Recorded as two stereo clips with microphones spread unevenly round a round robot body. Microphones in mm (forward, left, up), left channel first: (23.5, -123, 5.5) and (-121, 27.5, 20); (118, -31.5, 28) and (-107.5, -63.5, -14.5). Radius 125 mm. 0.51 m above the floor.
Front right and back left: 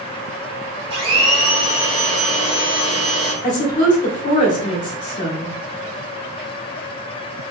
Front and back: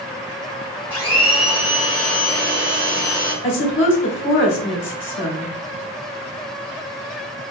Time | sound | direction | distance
0.9 | a blender | 100° left | 2.0 m
3.4 | a woman speaking | 15° right | 1.0 m